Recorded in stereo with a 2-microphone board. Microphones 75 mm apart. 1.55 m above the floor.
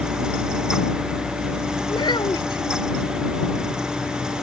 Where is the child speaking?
85° left.